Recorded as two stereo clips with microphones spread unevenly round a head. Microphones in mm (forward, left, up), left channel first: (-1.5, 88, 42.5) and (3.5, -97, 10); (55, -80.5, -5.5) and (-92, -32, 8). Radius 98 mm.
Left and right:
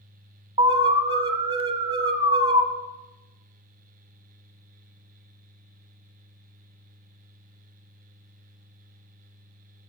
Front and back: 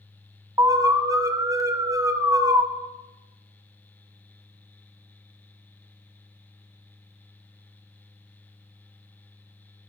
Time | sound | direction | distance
0.6 | an alarm | 135° right | 1.5 m